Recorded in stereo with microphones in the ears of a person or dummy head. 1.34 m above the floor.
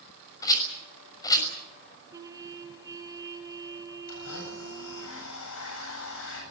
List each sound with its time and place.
0.4 s a rattle: 20° left (ahead or behind), 6 m
2.1 s a trumpet: 20° right (ahead or behind), 2.5 m
4.1 s a blender: 85° left, 8.5 m